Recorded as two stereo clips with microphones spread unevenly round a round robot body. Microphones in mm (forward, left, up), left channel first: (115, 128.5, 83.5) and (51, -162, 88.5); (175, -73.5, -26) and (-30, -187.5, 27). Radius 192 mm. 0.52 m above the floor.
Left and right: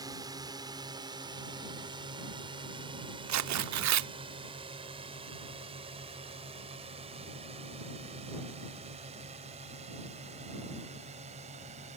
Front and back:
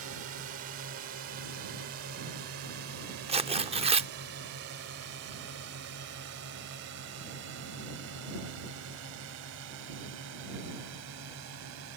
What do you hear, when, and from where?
0.0 s a drone: straight behind; by 12.0 s 170° right
3.3 s tearing paper: 80° right